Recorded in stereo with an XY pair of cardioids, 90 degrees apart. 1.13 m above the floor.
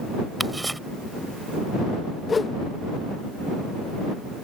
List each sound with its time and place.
0.4 s ticking: 10° right
2.3 s a whoosh: 40° left